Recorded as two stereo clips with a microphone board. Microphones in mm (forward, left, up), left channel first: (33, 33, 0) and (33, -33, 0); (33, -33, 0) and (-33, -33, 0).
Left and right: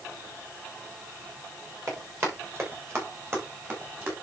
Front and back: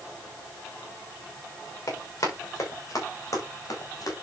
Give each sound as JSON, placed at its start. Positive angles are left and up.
{"t": 1.9, "sound": "running footsteps", "azimuth_deg": -45, "distance_m": 8.5}